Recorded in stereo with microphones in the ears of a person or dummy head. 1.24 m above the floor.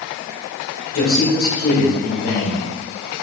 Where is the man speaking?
55° left (ahead or behind), 1.9 m.